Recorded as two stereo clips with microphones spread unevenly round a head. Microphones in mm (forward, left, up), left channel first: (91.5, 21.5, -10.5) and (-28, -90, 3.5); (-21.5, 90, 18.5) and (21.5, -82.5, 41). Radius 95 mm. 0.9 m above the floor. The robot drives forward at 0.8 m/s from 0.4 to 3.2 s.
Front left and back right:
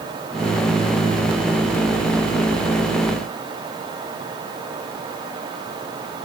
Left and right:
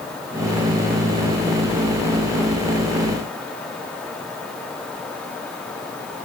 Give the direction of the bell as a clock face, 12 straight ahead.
No bell in this recording.